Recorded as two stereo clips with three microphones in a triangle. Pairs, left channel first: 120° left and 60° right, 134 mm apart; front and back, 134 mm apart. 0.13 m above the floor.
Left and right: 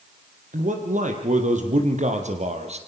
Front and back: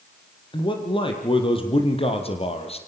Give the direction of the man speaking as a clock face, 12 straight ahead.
2 o'clock.